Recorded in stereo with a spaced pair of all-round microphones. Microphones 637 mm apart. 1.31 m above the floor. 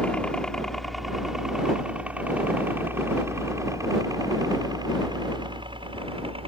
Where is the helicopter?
Centre (ahead or behind); by 6.5 s 10° right (ahead or behind).